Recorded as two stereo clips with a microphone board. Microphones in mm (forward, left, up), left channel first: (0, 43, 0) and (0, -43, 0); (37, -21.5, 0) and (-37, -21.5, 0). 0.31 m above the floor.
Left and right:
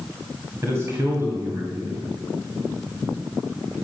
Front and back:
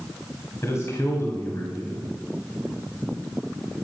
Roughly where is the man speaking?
Ahead right.